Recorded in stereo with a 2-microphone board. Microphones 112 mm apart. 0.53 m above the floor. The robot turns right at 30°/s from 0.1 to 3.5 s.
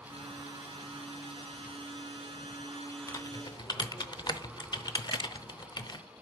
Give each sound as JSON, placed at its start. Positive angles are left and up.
{"t": 3.1, "sound": "typing on a keyboard", "side_deg": 30, "distance_m": 0.6}